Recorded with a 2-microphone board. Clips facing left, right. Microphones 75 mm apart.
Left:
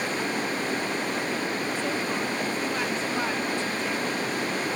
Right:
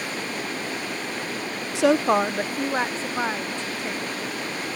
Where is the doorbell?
I don't hear a doorbell.